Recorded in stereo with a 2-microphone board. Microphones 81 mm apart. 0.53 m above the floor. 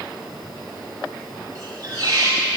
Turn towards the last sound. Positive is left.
turn(degrees=-40)  # may be behind; listen again after turning